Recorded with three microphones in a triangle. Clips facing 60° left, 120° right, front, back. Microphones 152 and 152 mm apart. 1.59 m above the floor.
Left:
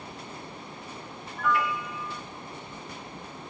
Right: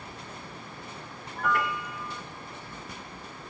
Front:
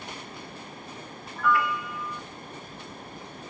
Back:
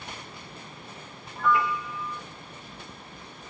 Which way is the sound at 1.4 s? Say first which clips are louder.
Left 1 dB, even; 120° right.